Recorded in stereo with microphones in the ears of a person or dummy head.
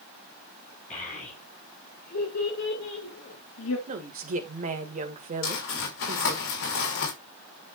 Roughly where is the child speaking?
Left.